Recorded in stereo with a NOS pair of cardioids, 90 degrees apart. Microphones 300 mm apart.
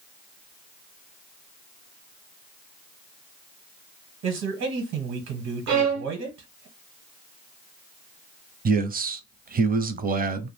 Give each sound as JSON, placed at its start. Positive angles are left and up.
{"t": 4.2, "sound": "a man speaking", "azimuth_deg": -70, "distance_m": 1.1}
{"t": 5.7, "sound": "a violin", "azimuth_deg": -70, "distance_m": 1.0}
{"t": 8.7, "sound": "a man speaking", "azimuth_deg": -30, "distance_m": 0.6}